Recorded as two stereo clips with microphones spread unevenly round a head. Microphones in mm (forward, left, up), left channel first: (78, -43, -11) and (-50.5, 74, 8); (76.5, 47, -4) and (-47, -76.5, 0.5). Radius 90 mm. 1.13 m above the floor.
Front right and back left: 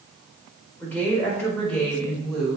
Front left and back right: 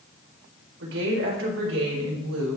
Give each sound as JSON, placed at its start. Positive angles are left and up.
{"t": 0.8, "sound": "a woman speaking", "azimuth_deg": -125, "distance_m": 4.0}